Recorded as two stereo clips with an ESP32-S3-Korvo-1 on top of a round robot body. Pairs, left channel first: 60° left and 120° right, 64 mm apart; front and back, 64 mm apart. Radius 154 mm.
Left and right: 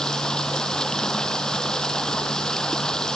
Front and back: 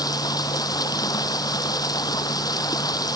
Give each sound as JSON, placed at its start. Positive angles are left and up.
{"t": 0.0, "sound": "running water", "azimuth_deg": -20}